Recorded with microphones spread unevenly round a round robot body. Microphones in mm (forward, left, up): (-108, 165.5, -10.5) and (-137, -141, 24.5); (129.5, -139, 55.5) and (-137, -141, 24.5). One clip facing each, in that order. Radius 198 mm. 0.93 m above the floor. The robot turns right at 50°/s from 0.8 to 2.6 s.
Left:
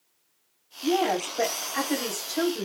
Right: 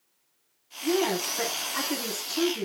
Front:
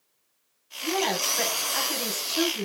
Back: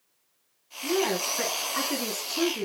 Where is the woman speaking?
45° right, 3.5 m; by 2.6 s 45° left, 3.5 m.